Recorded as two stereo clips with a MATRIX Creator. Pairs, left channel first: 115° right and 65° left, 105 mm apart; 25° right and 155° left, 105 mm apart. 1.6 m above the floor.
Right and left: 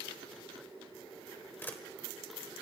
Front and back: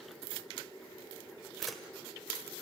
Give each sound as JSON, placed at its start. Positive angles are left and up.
{"t": 1.6, "sound": "a camera shutter", "azimuth_deg": -110, "distance_m": 1.4}